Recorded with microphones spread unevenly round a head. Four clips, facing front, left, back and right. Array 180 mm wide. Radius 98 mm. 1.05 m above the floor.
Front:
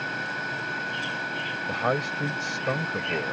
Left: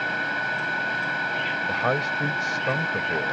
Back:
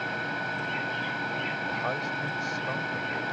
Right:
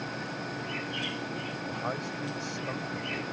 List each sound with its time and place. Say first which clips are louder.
0.0 s a fan: left 9 dB, even; 75° left
1.7 s a man speaking: left 10 dB, front 8 dB; 45° left